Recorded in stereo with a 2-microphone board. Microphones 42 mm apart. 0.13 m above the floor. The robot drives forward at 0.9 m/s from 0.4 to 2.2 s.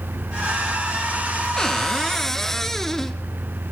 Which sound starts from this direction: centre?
A cupboard door, at 1.6 s.